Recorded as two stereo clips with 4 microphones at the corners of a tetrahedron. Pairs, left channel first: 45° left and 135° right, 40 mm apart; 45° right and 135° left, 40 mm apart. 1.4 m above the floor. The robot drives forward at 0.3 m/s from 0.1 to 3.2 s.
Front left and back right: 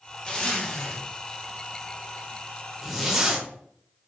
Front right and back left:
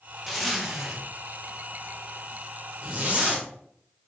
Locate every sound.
0.3 s a zipper: 50° left, 1.1 m; by 3.5 s 150° left, 1.2 m